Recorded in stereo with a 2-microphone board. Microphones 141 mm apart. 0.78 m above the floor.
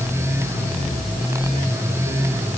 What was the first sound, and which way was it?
Only background noise.